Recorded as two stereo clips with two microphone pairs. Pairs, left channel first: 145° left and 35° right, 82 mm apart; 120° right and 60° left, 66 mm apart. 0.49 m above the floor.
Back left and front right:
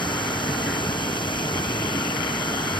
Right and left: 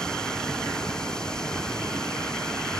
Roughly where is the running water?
Behind left.